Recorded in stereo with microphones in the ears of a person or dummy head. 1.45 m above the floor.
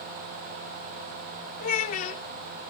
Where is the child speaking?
45° left (ahead or behind), 1.1 m.